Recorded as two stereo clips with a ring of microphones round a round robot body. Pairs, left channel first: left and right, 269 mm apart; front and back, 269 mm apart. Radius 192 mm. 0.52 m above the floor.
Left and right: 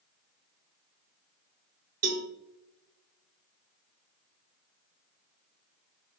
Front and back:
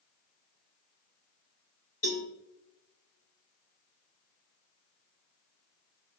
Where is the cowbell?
70° right, 1.7 m.